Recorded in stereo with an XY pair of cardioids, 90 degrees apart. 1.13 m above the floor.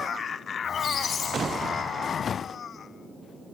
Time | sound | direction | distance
0.6 | a squeak | 55° left | 6 m